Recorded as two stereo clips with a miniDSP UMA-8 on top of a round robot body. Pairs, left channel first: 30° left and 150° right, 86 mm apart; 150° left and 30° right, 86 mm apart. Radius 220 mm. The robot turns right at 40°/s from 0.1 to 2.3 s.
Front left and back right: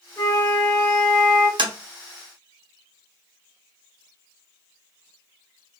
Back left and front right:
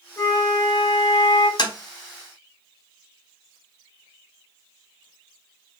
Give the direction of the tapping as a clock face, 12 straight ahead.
6 o'clock.